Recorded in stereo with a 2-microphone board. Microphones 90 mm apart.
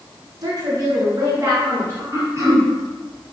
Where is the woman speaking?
45° right (ahead or behind), 1.7 m; by 2.0 s 25° right (ahead or behind), 2.5 m.